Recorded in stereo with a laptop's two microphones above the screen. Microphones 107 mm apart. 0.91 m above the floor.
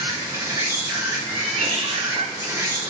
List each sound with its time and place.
0.0 s an insect: 30° right (ahead or behind), 0.8 m
1.3 s a cat meowing: 80° right, 0.6 m